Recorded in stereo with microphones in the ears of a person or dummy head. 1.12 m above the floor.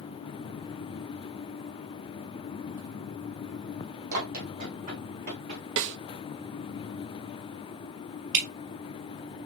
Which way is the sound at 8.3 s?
55° right (ahead or behind).